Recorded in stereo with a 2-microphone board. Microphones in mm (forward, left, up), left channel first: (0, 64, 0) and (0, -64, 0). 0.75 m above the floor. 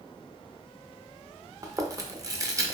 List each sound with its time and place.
1.6 s chewing: 25° right (ahead or behind), 0.5 m